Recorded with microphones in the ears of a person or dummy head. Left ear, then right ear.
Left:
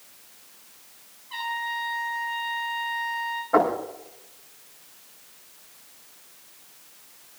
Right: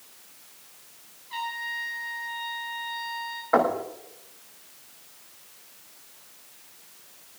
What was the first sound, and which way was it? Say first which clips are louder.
A trumpet: left 2 dB; 20° right (ahead or behind).